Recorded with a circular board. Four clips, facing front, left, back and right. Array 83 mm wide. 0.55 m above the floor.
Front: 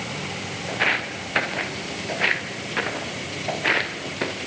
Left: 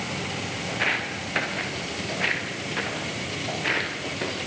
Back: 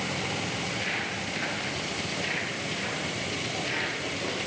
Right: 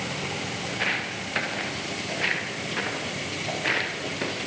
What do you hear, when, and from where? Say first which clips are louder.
0.7 s footsteps: left 3 dB, front 7 dB; 15° left, 5 m; by 4.4 s straight ahead, 6.5 m